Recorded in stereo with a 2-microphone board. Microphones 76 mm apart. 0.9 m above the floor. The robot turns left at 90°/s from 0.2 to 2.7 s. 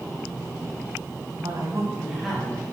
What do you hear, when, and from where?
1.4 s a woman speaking: 100° right, 6 m; by 2.7 s 140° left, 6 m